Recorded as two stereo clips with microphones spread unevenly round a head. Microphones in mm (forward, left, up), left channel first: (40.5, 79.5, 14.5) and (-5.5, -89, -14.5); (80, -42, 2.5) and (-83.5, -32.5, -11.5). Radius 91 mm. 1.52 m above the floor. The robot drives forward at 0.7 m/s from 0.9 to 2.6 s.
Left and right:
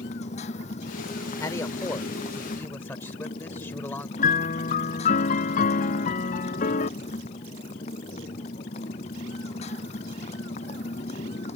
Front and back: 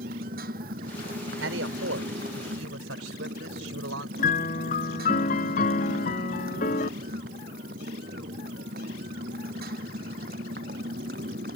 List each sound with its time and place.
0.0 s a motorcycle: 130° left
1.4 s a man speaking: 145° left; by 4.1 s 150° left
4.2 s a piano: 40° left